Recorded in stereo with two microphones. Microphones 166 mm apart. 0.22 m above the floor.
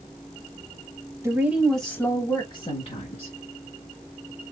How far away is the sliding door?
No sliding door in this recording.